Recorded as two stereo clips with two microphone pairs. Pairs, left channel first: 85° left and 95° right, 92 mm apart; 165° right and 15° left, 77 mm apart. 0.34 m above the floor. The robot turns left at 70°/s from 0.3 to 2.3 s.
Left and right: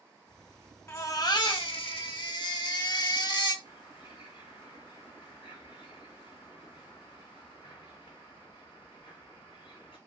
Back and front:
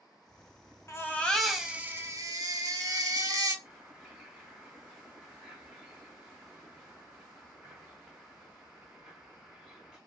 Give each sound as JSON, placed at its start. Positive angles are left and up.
{"t": 0.9, "sound": "a baby crying", "azimuth_deg": 150, "distance_m": 0.5}
{"t": 3.6, "sound": "a bird", "azimuth_deg": 95, "distance_m": 1.7}